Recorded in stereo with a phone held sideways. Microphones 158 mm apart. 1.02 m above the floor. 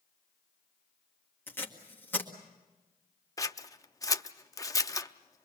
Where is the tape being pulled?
10° left (ahead or behind), 1.8 m.